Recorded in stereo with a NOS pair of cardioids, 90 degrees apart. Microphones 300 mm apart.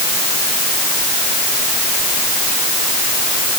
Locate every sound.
Only background noise.